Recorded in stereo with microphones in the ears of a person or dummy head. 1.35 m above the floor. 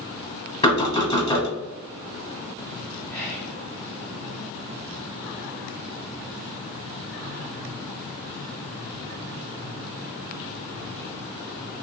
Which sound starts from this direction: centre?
Whispering, at 3.1 s.